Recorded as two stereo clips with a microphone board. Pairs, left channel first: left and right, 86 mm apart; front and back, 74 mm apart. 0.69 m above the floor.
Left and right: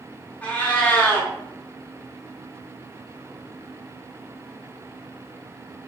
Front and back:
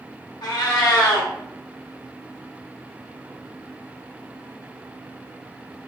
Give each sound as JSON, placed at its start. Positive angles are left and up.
{"t": 0.4, "sound": "a cat meowing", "azimuth_deg": 15, "distance_m": 0.7}